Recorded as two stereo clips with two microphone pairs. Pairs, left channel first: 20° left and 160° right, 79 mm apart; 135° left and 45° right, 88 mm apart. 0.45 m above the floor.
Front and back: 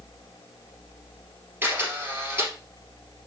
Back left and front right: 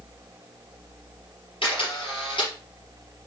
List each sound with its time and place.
1.6 s a camera shutter: 140° left, 3 m